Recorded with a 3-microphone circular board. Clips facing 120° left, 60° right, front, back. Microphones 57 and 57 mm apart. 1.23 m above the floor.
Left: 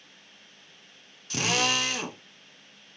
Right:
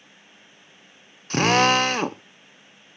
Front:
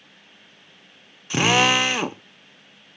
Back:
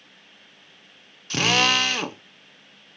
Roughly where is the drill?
Right.